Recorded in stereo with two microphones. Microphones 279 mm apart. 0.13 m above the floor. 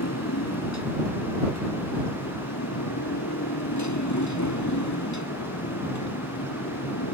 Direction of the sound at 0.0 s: 65° left (ahead or behind).